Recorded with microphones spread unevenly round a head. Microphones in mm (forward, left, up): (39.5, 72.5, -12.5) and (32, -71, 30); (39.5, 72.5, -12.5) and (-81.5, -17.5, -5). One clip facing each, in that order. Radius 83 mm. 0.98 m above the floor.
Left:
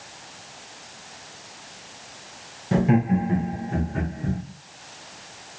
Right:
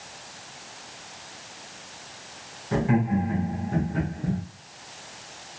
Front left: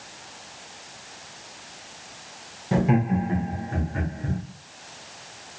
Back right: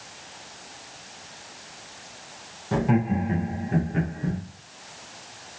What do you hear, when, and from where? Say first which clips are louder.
2.7 s laughter: left 3 dB, front left 1 dB; 105° left, 0.8 m; by 4.4 s straight behind, 1.1 m